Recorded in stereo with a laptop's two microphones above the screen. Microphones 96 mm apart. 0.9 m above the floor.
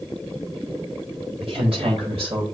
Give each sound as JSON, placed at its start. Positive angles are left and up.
{"t": 1.4, "sound": "a woman speaking", "side_deg": -70, "distance_m": 4.0}